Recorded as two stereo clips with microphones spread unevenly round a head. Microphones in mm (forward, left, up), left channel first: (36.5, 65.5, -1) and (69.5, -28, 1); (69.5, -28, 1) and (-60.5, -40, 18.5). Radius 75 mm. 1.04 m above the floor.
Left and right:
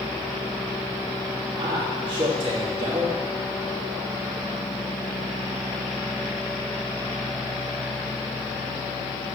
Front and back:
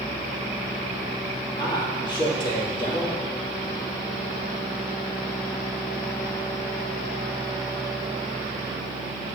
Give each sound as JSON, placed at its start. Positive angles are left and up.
{"t": 1.6, "sound": "a man speaking", "azimuth_deg": -45, "distance_m": 2.5}